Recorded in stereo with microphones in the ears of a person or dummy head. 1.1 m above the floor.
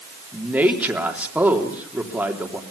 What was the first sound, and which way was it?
A man speaking, 10° right (ahead or behind).